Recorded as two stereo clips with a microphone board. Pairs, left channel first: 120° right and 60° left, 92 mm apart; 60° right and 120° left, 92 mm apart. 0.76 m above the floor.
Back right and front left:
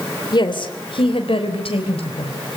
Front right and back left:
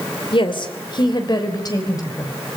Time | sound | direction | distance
0.3 | a woman speaking | 85° right | 3 m